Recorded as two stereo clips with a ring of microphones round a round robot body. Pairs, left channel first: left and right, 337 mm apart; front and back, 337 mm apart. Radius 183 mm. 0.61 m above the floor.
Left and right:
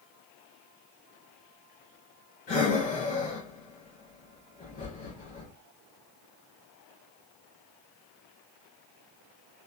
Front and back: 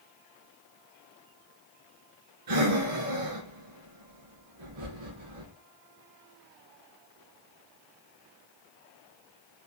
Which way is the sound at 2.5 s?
160° left.